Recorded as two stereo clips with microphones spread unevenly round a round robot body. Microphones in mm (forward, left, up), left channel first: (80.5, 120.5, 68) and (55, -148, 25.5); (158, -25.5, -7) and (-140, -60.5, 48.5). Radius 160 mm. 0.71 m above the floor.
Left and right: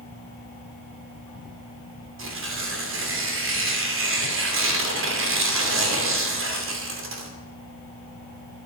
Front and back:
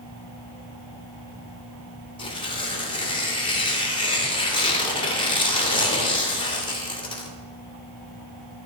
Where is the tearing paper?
65° right, 2.5 m.